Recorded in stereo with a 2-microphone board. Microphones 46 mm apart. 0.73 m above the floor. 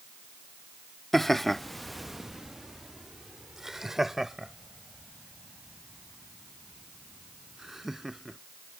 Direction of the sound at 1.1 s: 5° left (ahead or behind).